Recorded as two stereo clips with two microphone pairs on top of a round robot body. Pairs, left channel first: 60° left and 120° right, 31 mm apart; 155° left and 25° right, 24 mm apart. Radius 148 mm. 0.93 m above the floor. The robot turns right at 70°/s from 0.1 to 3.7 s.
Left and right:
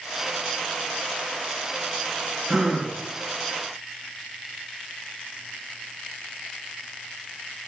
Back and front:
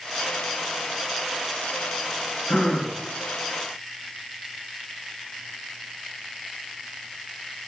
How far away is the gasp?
About 2 m.